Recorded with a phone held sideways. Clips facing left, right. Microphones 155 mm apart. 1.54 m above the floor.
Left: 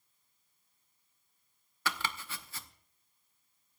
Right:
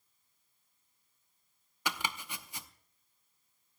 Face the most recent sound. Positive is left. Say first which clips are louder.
# left 1 dB
turn(degrees=-15)  # may be behind; listen again after turning